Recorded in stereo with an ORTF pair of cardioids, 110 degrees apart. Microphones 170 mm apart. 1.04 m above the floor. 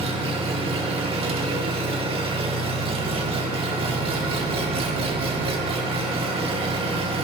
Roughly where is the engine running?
Ahead right.